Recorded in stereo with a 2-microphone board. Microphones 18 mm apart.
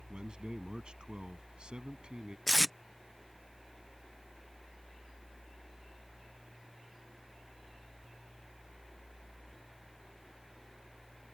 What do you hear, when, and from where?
0.1 s a man speaking: 50° right (ahead or behind); by 2.4 s 60° right (ahead or behind)
2.5 s tape being pulled: centre (ahead or behind)